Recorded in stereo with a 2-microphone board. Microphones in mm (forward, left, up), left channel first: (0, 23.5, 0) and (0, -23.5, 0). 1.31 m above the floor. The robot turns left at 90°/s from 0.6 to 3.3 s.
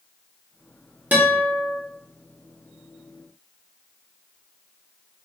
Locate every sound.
1.1 s a guitar: 45° right, 0.8 m; by 1.8 s 110° right, 0.8 m